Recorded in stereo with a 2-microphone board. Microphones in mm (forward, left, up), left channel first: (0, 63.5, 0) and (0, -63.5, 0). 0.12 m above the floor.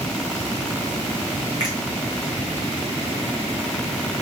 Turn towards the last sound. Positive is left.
turn(degrees=-35)  # may be behind; listen again after turning